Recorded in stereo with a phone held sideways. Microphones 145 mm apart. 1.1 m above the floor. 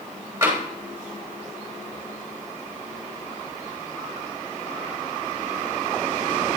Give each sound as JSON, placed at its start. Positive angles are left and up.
{"t": 0.4, "sound": "tapping", "side_deg": -20, "distance_m": 3.5}